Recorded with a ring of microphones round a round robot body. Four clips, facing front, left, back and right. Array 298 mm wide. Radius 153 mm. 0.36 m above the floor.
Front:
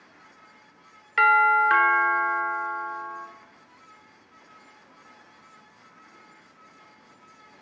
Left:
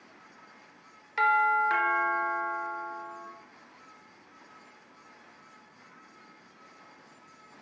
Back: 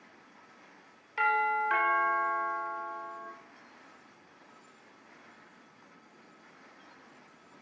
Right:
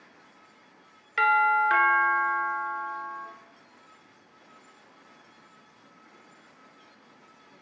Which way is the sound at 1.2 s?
15° right.